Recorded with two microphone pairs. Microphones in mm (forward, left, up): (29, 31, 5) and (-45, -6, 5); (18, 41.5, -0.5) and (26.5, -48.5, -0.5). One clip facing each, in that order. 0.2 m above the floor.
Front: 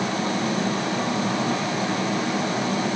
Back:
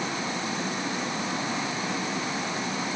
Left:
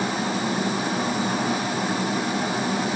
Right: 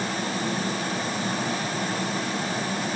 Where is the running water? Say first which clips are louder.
Front 6 dB, left 3 dB; 15° left, 7 m.